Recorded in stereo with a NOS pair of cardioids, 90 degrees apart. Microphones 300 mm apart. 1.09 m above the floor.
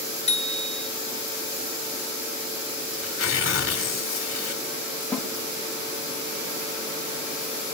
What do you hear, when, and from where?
0.3 s a bicycle bell: 20° left, 3 m
3.0 s tearing paper: 45° left, 3 m
5.1 s a snare drum: 5° left, 5.5 m